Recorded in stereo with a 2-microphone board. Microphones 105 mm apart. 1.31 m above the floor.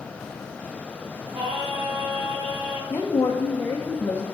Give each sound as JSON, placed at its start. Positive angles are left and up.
{"t": 1.3, "sound": "singing", "side_deg": -40, "distance_m": 4.0}
{"t": 2.9, "sound": "a woman speaking", "side_deg": 20, "distance_m": 1.0}